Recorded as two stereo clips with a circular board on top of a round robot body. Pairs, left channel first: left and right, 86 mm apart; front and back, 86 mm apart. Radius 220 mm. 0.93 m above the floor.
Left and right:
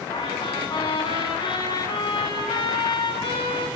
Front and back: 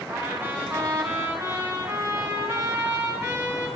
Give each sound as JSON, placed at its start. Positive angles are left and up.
{"t": 0.1, "sound": "a trumpet", "azimuth_deg": 115, "distance_m": 8.5}